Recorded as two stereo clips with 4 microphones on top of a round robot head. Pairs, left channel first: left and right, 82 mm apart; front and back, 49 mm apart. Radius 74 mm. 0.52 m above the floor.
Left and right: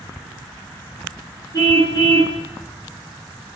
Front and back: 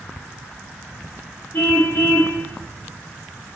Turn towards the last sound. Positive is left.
turn(degrees=45)